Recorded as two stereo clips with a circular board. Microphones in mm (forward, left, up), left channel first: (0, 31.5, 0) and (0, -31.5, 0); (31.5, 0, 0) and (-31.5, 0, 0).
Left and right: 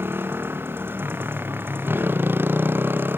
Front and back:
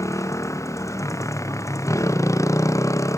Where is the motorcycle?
35° right.